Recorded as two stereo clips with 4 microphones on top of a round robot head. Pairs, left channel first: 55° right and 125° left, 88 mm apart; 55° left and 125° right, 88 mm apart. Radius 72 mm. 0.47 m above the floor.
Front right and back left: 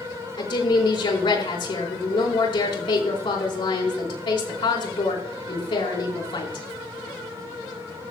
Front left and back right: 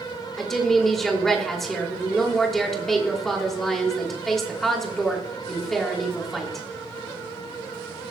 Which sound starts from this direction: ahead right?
A woman speaking, at 0.4 s.